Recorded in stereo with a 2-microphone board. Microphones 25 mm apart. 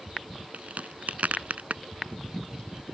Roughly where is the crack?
Right.